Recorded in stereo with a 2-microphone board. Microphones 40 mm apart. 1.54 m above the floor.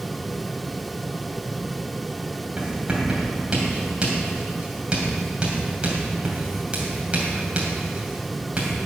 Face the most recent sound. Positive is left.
turn(degrees=-30)  # may be behind; listen again after turning